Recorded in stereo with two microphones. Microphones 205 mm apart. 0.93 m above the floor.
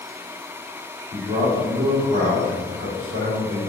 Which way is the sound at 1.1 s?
30° right (ahead or behind).